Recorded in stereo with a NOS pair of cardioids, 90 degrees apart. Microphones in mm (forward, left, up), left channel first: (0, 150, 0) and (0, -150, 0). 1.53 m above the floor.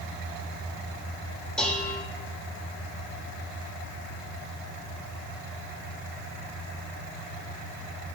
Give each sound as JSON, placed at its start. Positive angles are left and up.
{"t": 1.6, "sound": "dishes clattering", "azimuth_deg": 5, "distance_m": 3.5}